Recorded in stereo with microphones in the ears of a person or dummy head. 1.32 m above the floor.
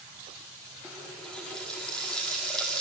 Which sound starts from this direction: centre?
A running tap, at 0.8 s.